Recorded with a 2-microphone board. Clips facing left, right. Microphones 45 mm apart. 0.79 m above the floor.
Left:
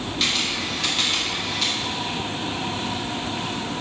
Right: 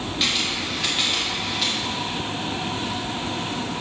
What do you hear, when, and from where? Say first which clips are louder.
0.2 s a camera shutter: even; 5° right (ahead or behind), 2.5 m